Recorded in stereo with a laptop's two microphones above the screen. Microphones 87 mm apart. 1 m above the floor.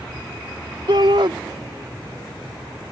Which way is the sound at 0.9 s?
65° right (ahead or behind).